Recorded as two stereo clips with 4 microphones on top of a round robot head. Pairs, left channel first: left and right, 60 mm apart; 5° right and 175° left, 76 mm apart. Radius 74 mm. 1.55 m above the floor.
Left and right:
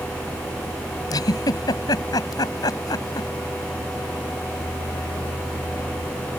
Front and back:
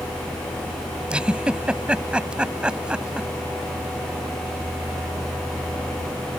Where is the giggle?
100° left.